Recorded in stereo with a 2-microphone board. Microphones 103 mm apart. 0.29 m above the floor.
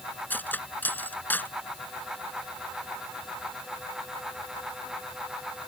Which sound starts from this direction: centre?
Cutlery clinking, at 0.3 s.